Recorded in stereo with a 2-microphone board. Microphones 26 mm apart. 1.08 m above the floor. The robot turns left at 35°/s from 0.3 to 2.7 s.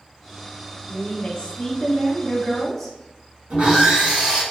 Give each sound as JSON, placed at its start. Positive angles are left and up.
{"t": 0.9, "sound": "a woman speaking", "azimuth_deg": 70, "distance_m": 0.9}
{"t": 3.5, "sound": "sawing", "side_deg": -45, "distance_m": 1.7}